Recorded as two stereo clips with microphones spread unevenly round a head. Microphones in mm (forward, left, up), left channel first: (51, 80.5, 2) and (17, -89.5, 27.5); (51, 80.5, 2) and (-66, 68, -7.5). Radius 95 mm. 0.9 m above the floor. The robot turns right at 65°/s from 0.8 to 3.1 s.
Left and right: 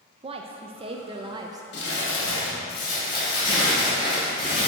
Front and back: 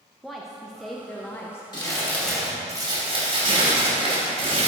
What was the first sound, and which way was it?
A woman speaking, 95° right.